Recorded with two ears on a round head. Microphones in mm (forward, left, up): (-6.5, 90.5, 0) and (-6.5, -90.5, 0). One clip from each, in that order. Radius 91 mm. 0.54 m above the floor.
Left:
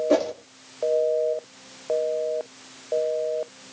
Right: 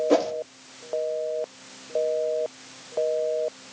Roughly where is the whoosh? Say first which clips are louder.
Left 1 dB; centre.